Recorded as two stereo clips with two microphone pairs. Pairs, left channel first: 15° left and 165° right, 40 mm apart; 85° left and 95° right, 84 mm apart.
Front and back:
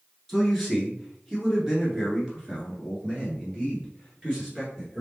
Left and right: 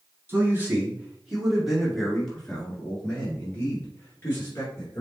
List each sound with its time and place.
0.3 s a man speaking: 75° right, 1.6 m; by 5.0 s 135° left, 2.5 m